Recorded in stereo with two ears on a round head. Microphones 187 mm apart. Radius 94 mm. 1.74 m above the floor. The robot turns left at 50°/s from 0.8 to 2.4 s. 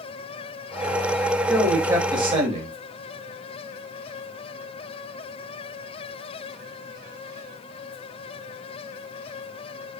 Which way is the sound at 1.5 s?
5° left.